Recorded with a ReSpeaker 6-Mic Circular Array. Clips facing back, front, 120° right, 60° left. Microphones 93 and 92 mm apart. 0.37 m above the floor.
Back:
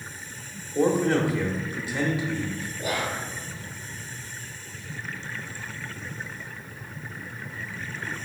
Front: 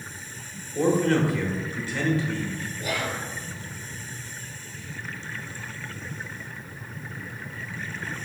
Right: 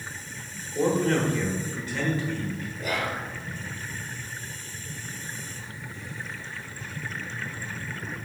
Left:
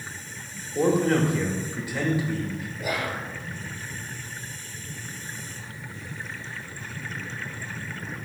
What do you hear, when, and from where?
0.8 s a man speaking: 125° left, 0.8 m
2.8 s whispering: 130° left, 0.9 m